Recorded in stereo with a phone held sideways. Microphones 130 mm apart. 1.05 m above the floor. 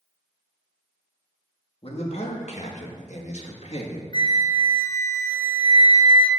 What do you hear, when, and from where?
1.8 s a man speaking: 50° left (ahead or behind), 2 m
4.1 s a flute: 35° left (ahead or behind), 0.9 m